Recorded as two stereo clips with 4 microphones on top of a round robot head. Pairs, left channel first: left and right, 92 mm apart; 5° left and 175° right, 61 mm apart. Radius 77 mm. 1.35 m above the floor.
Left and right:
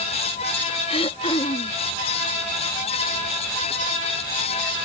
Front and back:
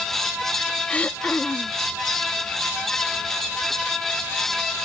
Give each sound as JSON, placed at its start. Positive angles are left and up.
{"t": 0.9, "sound": "throat clearing", "azimuth_deg": 70}